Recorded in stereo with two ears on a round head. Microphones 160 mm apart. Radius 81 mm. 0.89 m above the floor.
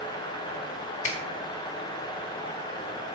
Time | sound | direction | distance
1.0 | a finger snap | 40° left (ahead or behind) | 2 m